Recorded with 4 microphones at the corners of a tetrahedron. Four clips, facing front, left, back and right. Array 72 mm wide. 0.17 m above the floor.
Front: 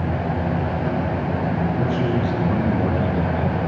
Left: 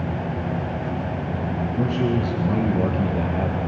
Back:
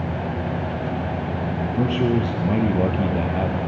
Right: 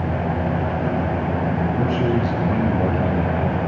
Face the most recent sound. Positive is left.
turn(degrees=165)